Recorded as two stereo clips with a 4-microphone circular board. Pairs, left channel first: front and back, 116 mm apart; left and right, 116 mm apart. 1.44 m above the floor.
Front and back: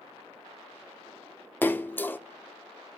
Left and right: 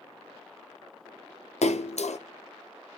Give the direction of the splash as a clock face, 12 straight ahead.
10 o'clock.